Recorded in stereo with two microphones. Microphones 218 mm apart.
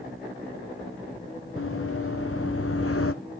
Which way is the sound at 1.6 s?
75° left (ahead or behind).